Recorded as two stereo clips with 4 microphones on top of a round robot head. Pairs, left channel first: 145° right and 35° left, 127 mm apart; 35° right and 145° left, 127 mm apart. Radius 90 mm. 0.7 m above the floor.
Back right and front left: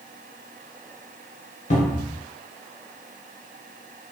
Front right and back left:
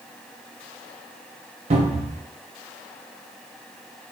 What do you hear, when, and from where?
1.7 s a cupboard door: 175° right, 0.6 m